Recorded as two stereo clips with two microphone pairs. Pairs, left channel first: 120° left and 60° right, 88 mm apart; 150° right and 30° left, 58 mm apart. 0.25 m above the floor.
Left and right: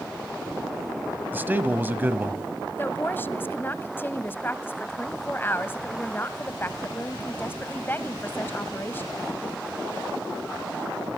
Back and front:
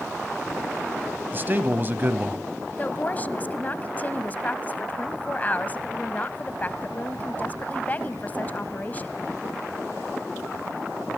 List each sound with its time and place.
1.3 s a man speaking: straight ahead, 1.2 m
2.8 s a woman speaking: 170° left, 1.1 m